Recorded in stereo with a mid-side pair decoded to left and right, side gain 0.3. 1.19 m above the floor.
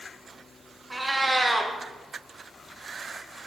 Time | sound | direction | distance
0.9 | a cat meowing | 20° right | 1.1 m